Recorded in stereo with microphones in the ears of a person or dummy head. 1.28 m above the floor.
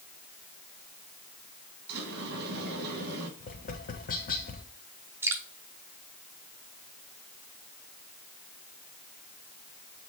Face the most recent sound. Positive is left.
turn(degrees=-5)  # may be behind; listen again after turning